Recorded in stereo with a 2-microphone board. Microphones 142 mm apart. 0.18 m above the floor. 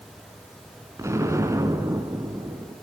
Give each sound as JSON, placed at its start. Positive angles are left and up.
{"t": 1.0, "sound": "an explosion", "side_deg": -20, "distance_m": 1.9}